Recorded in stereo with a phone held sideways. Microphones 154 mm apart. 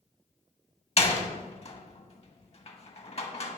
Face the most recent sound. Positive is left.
turn(degrees=40)  # may be behind; listen again after turning